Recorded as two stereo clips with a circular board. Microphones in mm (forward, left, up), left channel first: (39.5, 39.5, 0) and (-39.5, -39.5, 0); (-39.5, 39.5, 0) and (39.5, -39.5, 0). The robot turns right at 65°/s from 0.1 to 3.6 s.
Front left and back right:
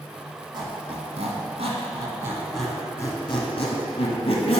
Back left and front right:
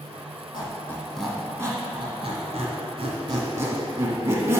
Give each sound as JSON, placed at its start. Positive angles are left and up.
{"t": 0.5, "sound": "a squeak", "azimuth_deg": 175, "distance_m": 1.4}